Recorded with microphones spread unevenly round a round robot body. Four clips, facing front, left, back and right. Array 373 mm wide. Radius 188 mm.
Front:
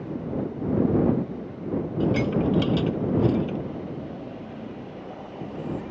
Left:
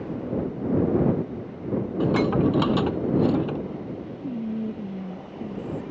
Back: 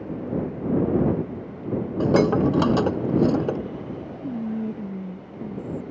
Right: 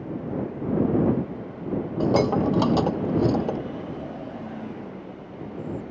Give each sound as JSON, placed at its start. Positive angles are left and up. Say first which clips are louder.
{"t": 2.0, "sound": "dishes clattering", "louder": "right 1 dB, back 5 dB", "azimuth_deg": 180}
{"t": 4.2, "sound": "whispering", "louder": "left 5 dB, back 8 dB", "azimuth_deg": 145}